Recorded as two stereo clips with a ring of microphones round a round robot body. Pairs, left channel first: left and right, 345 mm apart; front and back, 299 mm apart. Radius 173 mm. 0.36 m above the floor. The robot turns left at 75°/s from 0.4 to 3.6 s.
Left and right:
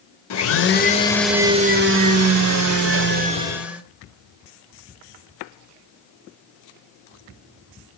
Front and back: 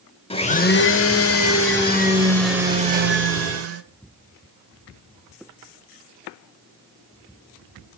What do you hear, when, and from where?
0.3 s a blender: 65° left, 1.1 m; by 3.8 s 175° right, 1.1 m